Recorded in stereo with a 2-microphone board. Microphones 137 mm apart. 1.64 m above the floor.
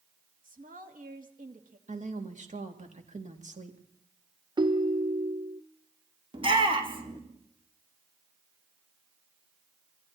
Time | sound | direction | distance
0.4 | a woman speaking | 80° right | 2.5 m
1.9 | a woman speaking | 65° right (ahead or behind) | 3.5 m
4.6 | a ringtone | 30° right (ahead or behind) | 0.6 m
6.3 | a shout | 40° right (ahead or behind) | 4 m